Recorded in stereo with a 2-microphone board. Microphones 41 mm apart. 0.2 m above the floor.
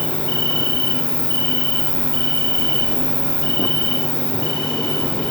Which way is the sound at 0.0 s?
75° left (ahead or behind).